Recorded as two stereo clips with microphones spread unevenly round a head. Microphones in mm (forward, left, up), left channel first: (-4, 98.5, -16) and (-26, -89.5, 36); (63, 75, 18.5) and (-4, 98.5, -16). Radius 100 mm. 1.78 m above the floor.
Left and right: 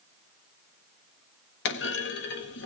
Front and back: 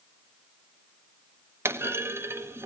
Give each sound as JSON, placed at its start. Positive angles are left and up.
{"t": 1.6, "sound": "a clunk", "azimuth_deg": 90, "distance_m": 1.1}